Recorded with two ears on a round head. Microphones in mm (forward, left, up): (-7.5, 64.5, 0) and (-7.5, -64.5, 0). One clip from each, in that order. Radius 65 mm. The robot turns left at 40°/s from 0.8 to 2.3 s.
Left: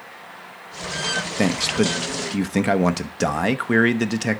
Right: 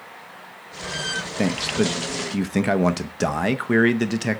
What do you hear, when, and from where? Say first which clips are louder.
1.4 s a man speaking: left 1 dB; 45° left, 0.5 m; by 4.4 s 5° left, 0.5 m